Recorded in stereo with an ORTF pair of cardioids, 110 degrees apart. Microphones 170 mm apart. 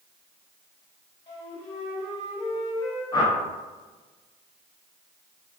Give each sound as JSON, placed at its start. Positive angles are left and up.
{"t": 1.3, "sound": "a flute", "azimuth_deg": 30, "distance_m": 1.2}
{"t": 3.1, "sound": "a whoosh", "azimuth_deg": 25, "distance_m": 0.6}